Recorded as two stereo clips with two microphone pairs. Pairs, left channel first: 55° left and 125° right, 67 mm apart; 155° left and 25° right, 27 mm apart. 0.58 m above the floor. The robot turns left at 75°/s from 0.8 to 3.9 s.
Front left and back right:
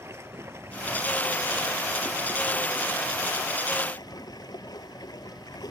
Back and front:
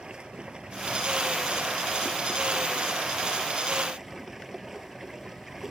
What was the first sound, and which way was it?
Running water, 80° right.